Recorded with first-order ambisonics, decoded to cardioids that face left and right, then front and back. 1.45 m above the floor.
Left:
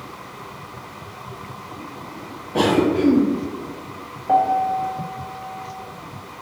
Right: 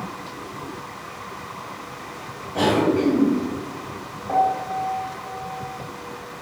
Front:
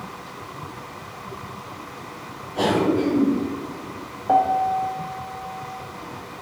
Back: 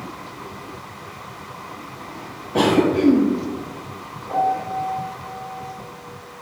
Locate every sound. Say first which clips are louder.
2.5 s a cough: left 1 dB, back 3 dB; 150° left, 0.7 m
4.3 s a piano: left 3 dB, front 3 dB; 20° left, 0.6 m